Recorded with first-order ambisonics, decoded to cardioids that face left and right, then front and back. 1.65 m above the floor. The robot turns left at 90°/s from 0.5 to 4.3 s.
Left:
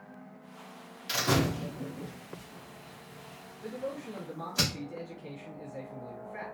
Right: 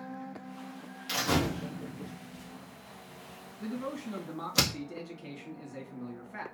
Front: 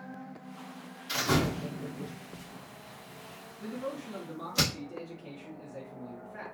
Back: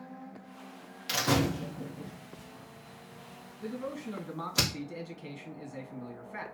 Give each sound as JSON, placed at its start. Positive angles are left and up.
{"t": 1.1, "sound": "a door slam", "azimuth_deg": 180, "distance_m": 1.3}
{"t": 3.6, "sound": "a man speaking", "azimuth_deg": -85, "distance_m": 1.8}